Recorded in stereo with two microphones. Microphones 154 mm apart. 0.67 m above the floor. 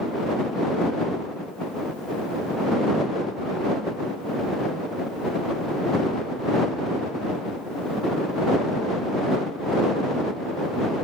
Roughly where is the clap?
I don't hear a clap.